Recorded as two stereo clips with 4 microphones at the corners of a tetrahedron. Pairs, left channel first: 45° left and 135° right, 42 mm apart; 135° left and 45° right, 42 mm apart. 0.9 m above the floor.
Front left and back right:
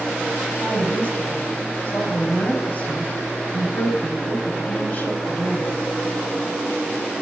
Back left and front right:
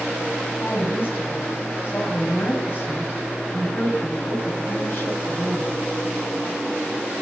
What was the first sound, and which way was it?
A woman speaking, 95° left.